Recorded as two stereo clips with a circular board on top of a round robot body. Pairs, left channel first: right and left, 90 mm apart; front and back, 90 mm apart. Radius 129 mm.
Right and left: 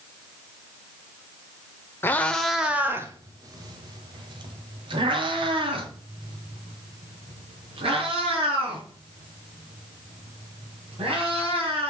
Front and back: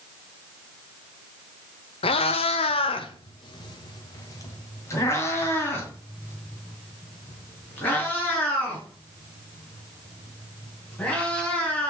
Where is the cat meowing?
20° right, 0.9 m; by 11.9 s 75° left, 7.5 m.